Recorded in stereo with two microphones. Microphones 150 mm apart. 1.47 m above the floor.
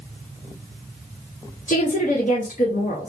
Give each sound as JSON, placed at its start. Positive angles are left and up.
{"t": 1.7, "sound": "a woman speaking", "side_deg": 60, "distance_m": 0.7}